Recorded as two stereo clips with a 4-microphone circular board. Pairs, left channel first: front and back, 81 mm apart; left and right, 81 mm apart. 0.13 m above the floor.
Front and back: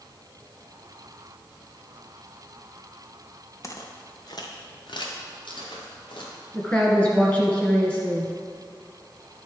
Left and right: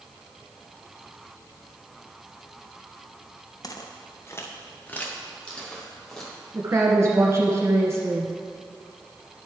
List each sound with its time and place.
3.6 s footsteps: 50° left, 1.4 m; by 6.3 s 5° left, 3 m
6.5 s a woman speaking: 65° right, 1.7 m